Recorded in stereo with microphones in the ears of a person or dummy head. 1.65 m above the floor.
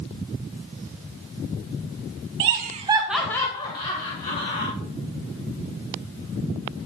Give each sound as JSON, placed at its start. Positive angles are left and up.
{"t": 2.4, "sound": "laughter", "side_deg": -60, "distance_m": 1.0}